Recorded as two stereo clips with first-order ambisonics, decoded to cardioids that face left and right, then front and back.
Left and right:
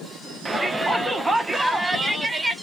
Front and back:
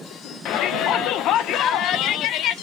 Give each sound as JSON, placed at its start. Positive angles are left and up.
{"t": 0.5, "sound": "a shout", "azimuth_deg": -10, "distance_m": 0.7}